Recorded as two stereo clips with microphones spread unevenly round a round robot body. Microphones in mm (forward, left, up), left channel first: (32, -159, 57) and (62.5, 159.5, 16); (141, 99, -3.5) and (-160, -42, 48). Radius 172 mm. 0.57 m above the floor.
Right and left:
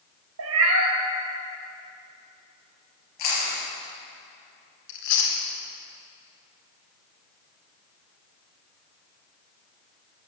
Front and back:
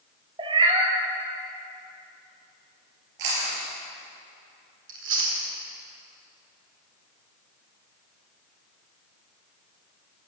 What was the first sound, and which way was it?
A cat meowing, 135° left.